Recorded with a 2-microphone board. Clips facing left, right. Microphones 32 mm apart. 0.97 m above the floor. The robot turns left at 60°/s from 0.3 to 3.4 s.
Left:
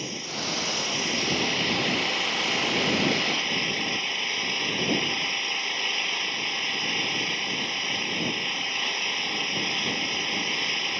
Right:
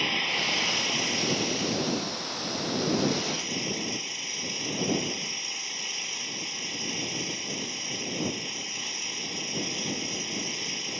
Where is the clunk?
No clunk in this recording.